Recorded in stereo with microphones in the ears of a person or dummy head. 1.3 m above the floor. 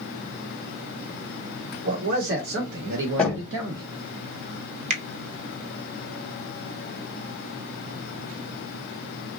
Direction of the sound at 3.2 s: 10° left (ahead or behind).